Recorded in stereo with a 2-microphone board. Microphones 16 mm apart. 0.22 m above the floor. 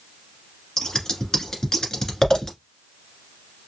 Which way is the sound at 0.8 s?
35° left (ahead or behind).